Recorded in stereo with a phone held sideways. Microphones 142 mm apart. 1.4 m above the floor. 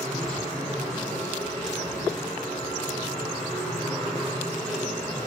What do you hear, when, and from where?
0.0 s a machine running: 5° left (ahead or behind), 4 m